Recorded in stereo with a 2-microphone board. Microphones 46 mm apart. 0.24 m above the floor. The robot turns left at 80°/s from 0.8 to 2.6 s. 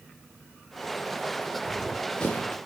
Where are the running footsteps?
25° right (ahead or behind), 3.5 m; by 2.6 s 45° left (ahead or behind), 3.5 m.